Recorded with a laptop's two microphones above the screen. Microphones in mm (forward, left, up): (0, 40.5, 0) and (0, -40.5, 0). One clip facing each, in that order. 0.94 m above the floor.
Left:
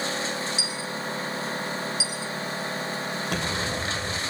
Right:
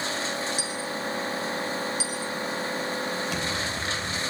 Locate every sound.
0.6 s a dropped coin: 45° right (ahead or behind), 2 m
3.3 s an explosion: 55° left (ahead or behind), 3 m